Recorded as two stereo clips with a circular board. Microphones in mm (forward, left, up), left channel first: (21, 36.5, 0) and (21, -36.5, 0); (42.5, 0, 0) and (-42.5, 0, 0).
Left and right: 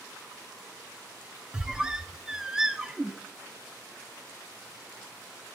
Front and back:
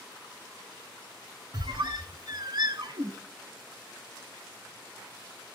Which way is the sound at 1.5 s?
170° right.